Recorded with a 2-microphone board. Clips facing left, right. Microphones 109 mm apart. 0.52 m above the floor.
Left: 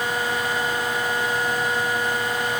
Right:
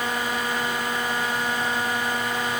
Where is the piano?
I don't hear a piano.